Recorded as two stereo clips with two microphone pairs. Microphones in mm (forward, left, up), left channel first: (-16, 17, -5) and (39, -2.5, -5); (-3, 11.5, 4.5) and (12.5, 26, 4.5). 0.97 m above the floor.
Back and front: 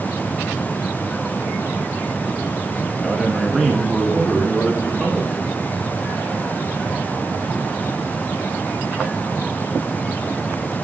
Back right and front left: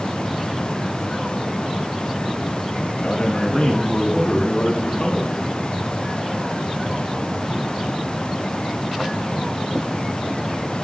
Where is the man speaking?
115° right, 0.8 m; by 5.5 s 105° right, 2.5 m.